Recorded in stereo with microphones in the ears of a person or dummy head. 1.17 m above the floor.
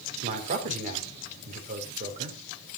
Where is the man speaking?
40° right (ahead or behind), 3.5 m.